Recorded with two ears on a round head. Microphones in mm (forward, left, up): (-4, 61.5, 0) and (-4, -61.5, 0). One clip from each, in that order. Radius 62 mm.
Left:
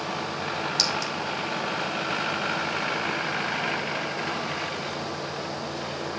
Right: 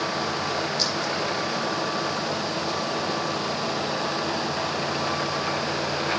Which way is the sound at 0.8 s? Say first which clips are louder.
Left 3 dB; 55° left (ahead or behind).